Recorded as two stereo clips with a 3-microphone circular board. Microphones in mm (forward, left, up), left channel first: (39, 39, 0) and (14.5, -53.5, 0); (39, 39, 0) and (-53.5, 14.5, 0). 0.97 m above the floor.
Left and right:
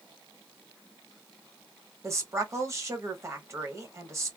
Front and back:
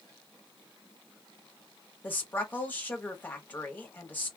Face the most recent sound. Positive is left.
turn(degrees=-50)